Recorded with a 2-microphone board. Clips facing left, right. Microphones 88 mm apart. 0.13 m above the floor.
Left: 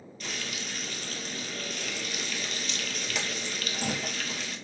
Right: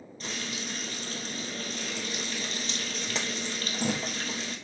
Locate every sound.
0.2 s frying: 35° right (ahead or behind), 0.9 m